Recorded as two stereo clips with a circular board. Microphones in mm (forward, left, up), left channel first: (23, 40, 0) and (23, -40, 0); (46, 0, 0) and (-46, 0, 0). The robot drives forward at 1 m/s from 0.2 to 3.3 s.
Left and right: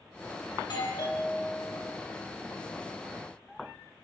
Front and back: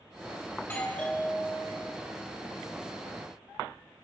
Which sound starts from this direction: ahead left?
A doorbell, at 0.6 s.